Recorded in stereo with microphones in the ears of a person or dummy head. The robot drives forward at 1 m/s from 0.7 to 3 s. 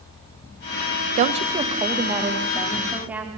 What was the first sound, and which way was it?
A woman speaking, 40° right (ahead or behind).